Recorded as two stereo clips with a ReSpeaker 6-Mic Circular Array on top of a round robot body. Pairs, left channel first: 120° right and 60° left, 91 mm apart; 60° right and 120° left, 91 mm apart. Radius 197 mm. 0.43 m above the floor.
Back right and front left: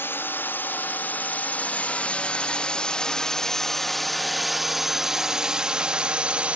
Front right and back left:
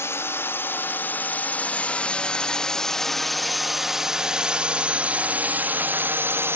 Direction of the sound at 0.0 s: 80° right.